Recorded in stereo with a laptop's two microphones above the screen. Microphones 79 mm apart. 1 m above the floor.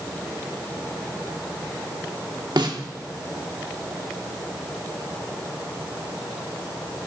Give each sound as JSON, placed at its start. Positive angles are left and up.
{"t": 2.6, "sound": "a snare drum", "side_deg": -75, "distance_m": 1.1}